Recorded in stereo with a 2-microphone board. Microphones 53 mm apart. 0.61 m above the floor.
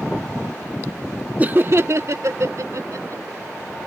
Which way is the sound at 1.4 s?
25° right (ahead or behind).